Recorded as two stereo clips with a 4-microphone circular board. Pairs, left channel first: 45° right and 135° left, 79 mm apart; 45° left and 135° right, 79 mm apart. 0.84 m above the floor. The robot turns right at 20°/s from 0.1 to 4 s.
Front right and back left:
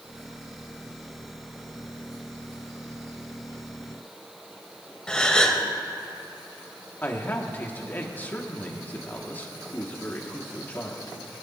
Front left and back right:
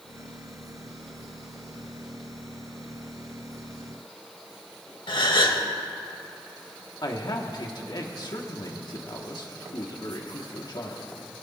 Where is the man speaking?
20° left, 1.9 m.